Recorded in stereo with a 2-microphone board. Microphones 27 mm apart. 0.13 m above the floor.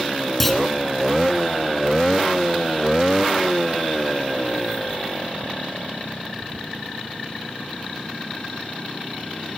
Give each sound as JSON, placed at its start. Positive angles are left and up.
{"t": 0.4, "sound": "a clunk", "side_deg": 5, "distance_m": 1.4}